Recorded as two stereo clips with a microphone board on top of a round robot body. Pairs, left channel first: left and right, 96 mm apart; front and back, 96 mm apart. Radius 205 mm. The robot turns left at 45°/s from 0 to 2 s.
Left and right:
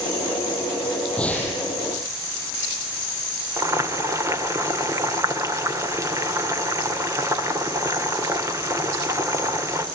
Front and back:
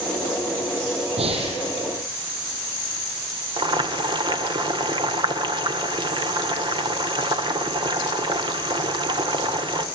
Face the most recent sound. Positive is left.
turn(degrees=-145)